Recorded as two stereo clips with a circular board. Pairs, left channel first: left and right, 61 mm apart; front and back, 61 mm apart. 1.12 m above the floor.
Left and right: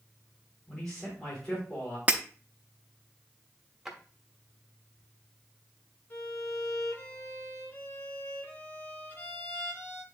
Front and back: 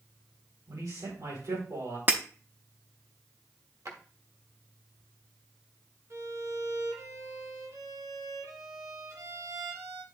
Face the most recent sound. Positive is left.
turn(degrees=145)